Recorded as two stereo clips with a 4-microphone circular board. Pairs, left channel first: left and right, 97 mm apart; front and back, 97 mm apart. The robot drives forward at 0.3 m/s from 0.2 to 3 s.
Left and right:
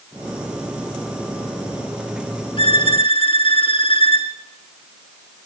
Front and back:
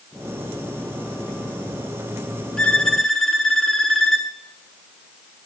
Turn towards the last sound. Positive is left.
turn(degrees=85)